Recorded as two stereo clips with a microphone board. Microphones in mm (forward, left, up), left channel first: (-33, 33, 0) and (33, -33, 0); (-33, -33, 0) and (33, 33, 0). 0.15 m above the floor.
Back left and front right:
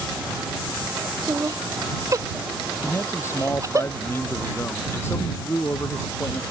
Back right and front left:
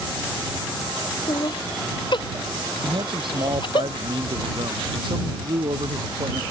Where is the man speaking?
75° left.